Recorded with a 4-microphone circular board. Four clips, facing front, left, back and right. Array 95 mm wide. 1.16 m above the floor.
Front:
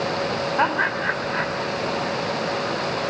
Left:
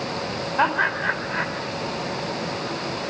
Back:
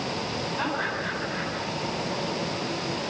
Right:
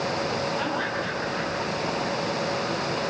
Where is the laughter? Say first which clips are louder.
Left 6 dB, front 8 dB; 40° left, 5 m.